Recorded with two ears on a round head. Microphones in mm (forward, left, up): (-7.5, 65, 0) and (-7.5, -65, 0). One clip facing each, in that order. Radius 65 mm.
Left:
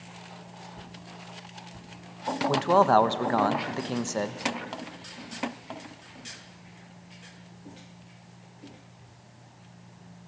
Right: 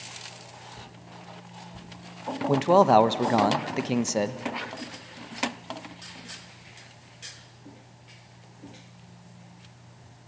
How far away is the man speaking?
About 0.8 m.